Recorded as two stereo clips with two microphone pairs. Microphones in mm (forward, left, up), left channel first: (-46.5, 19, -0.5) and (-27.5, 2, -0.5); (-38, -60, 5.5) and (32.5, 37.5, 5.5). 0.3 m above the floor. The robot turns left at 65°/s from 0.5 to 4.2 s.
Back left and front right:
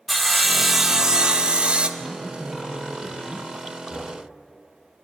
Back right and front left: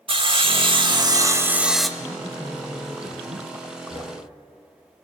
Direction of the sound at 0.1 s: 50° left.